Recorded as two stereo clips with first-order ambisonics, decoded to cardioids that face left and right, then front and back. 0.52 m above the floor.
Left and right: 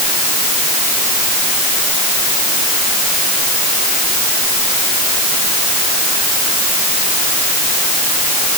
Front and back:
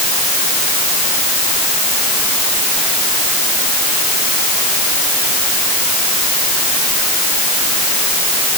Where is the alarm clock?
I don't hear an alarm clock.